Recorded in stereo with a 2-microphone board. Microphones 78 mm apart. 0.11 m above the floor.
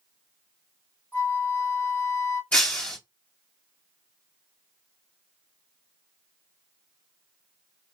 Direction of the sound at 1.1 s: 40° left (ahead or behind).